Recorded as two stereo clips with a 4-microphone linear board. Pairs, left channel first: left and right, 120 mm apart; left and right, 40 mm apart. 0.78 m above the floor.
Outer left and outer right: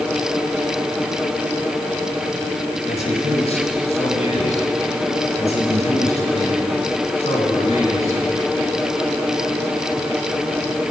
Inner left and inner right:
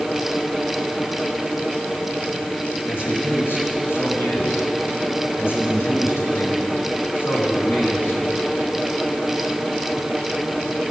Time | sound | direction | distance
2.9 | a man speaking | 65° left (ahead or behind) | 5 m